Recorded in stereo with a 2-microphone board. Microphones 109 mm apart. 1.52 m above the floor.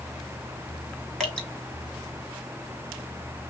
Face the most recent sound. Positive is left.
turn(degrees=0)  # may be behind; listen again after turning